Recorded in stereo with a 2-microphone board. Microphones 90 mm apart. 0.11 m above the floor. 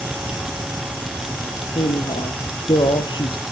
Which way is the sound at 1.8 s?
70° left (ahead or behind).